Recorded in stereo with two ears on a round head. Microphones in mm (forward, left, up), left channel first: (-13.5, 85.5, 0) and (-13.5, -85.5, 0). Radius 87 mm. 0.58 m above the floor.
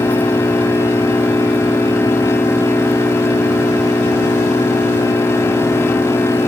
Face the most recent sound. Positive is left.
turn(degrees=10)  # may be behind; listen again after turning